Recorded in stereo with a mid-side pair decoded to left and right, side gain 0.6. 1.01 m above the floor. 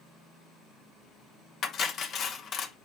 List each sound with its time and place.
1.6 s cutlery clinking: 45° left, 0.8 m